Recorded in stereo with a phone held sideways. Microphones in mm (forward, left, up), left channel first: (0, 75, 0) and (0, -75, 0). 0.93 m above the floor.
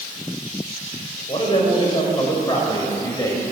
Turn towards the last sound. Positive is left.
turn(degrees=20)  # may be behind; listen again after turning